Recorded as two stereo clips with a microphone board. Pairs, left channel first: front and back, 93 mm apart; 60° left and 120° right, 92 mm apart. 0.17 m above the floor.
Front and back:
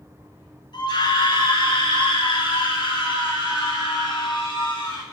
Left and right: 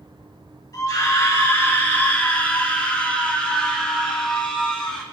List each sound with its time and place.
0.7 s a scream: 10° left, 3.5 m; by 5.0 s 25° right, 7.5 m